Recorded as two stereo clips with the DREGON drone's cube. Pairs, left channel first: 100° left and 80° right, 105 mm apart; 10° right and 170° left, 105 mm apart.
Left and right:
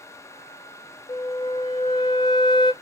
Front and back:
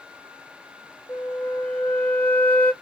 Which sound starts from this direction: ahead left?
A flute, at 1.1 s.